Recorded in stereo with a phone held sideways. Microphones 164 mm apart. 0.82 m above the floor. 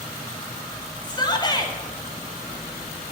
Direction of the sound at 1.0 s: 30° left (ahead or behind).